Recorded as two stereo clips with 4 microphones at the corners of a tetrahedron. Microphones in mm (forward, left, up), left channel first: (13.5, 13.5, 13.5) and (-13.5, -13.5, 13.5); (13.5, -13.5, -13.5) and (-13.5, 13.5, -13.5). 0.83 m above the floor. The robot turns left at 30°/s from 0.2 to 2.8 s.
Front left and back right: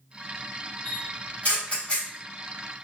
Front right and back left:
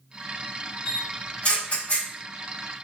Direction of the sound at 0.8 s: 25° left.